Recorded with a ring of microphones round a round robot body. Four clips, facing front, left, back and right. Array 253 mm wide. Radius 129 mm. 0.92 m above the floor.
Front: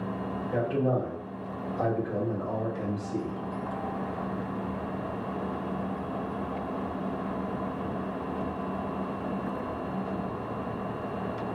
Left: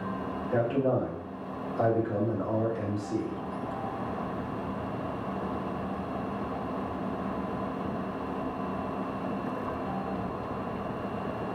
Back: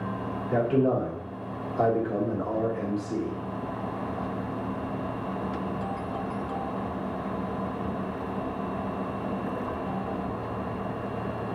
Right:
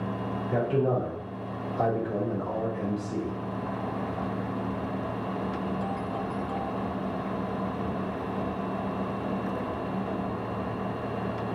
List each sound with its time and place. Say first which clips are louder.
0.5 s a man speaking: even, back 4 dB; 170° right, 2.5 m